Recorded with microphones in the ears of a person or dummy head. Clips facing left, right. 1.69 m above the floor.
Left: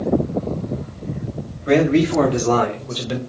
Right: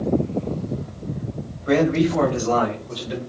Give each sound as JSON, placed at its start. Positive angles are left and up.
{"t": 1.7, "sound": "a man speaking", "side_deg": 35, "distance_m": 1.6}